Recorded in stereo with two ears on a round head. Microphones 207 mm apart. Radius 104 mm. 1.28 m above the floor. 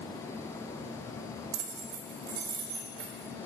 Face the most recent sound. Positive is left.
turn(degrees=-50)  # may be behind; listen again after turning